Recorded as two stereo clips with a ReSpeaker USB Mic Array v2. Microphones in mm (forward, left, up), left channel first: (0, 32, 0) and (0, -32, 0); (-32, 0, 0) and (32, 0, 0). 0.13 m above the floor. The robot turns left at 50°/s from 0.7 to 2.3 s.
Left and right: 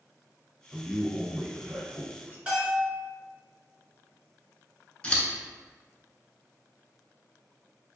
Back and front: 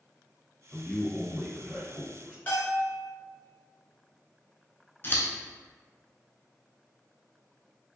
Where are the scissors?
155° left, 0.6 m.